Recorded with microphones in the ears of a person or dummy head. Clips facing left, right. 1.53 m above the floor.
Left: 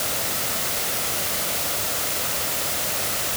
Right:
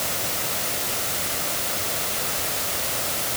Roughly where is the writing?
No writing in this recording.